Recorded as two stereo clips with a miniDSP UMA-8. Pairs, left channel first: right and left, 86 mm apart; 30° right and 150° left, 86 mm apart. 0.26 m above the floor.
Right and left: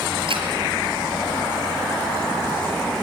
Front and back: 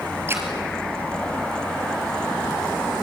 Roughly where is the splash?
Left.